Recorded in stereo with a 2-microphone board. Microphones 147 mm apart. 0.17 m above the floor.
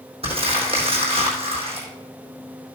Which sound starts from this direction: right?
Crumpling, at 0.2 s.